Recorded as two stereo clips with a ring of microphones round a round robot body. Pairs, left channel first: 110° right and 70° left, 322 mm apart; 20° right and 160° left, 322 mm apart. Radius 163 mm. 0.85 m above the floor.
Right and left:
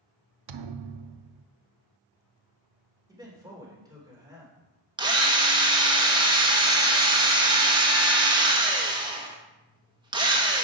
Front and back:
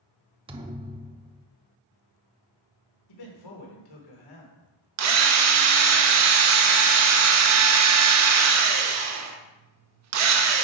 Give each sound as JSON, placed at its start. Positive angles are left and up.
{"t": 0.5, "sound": "a thud", "azimuth_deg": 85, "distance_m": 0.6}
{"t": 3.1, "sound": "a man speaking", "azimuth_deg": -10, "distance_m": 3.0}
{"t": 5.0, "sound": "a drill", "azimuth_deg": 140, "distance_m": 1.2}